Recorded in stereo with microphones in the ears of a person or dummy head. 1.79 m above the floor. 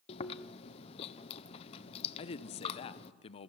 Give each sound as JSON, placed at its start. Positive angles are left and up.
{"t": 0.1, "sound": "chewing", "side_deg": 30, "distance_m": 1.0}
{"t": 2.2, "sound": "a man speaking", "side_deg": 35, "distance_m": 0.9}